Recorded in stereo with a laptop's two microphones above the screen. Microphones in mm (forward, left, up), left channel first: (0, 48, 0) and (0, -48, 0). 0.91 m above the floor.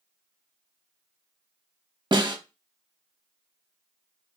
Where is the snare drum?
50° right (ahead or behind), 1.0 m.